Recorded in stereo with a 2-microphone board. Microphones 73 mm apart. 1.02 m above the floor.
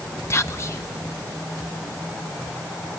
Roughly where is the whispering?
Left.